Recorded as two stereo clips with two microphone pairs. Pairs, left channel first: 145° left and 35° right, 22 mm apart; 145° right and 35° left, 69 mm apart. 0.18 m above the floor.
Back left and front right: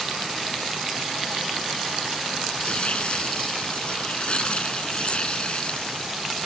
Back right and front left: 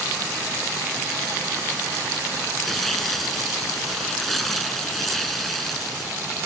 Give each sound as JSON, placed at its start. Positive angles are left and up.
{"t": 2.6, "sound": "tearing paper", "azimuth_deg": 125}